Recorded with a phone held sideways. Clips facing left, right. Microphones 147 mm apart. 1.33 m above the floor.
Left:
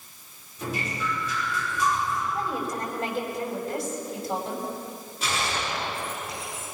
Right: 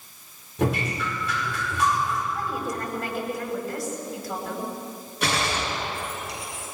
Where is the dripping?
75° right (ahead or behind), 5 m.